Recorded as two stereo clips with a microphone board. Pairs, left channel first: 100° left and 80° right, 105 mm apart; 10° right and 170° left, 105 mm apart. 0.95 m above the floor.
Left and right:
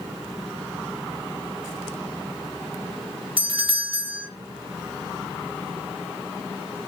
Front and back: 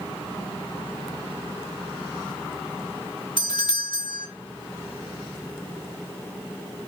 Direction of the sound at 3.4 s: 55° right.